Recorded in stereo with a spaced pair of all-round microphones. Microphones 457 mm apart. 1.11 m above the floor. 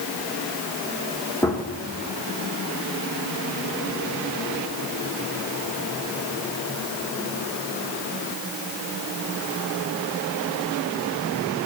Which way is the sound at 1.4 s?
5° left (ahead or behind).